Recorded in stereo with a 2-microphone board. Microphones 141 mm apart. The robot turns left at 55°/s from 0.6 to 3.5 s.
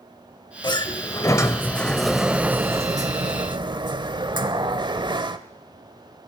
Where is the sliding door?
80° left, 0.6 m; by 5.4 s 80° right, 0.6 m.